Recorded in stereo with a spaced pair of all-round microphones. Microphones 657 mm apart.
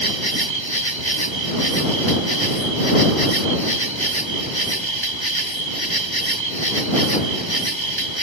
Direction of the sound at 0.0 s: 40° right (ahead or behind).